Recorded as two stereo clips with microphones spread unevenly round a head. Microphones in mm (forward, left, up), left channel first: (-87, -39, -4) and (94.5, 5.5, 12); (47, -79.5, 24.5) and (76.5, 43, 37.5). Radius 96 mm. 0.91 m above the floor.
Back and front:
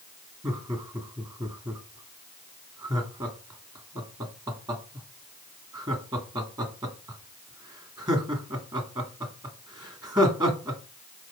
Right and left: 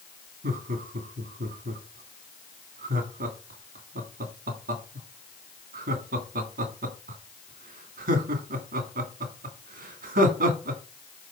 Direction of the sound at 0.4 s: 85° left.